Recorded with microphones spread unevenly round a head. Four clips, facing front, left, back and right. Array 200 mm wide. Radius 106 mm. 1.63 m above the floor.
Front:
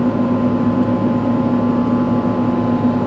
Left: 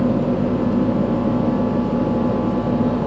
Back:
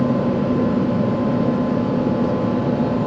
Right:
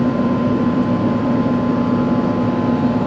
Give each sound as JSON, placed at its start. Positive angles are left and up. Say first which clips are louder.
{"t": 0.0, "sound": "a fan", "louder": "right 2 dB, front 3 dB", "azimuth_deg": -40, "distance_m": 2.5}